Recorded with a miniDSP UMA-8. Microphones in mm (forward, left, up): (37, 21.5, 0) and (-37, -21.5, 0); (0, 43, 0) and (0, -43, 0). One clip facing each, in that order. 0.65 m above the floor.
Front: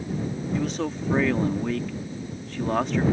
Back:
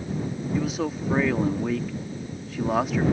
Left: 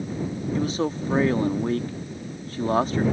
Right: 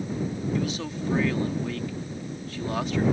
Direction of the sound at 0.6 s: 125° left.